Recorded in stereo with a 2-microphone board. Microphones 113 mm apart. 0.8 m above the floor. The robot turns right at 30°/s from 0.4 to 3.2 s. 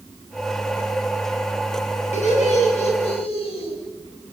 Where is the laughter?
90° left, 8.5 m; by 3.7 s 120° left, 8.5 m.